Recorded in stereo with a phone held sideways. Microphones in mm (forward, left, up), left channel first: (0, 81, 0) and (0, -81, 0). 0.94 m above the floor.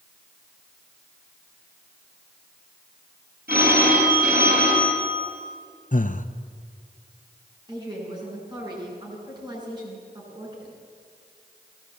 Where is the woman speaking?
25° right (ahead or behind), 9.5 m.